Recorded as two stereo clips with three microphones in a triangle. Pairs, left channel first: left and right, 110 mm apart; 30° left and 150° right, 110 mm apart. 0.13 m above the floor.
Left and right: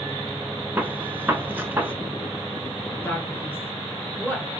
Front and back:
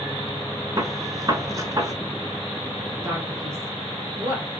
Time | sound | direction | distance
0.8 | a gunshot | 145° right | 0.9 m
3.0 | a man speaking | 155° left | 1.9 m